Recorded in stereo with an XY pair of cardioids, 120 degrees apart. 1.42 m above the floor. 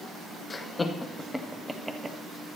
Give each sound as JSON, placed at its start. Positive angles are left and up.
{"t": 0.5, "sound": "laughter", "azimuth_deg": 25, "distance_m": 1.8}